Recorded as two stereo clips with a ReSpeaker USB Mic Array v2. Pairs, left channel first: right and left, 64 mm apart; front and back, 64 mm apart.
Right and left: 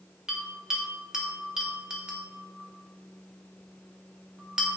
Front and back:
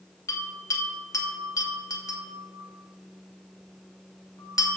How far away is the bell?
About 1.8 m.